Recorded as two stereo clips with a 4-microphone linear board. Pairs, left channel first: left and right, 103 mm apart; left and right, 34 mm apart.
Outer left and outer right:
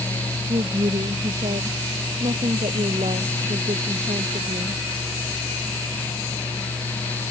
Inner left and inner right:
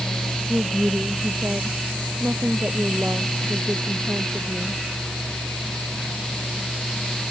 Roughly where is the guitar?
No guitar in this recording.